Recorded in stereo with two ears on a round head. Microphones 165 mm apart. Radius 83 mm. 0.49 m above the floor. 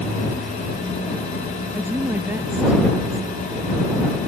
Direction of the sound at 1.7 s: 10° right (ahead or behind).